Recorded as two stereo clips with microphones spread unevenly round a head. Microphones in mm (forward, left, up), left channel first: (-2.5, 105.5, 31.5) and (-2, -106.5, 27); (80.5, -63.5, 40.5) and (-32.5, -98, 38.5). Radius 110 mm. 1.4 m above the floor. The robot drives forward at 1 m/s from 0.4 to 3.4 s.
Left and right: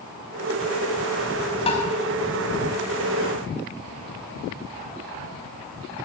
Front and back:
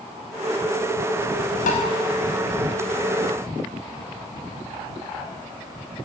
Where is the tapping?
25° left, 5 m.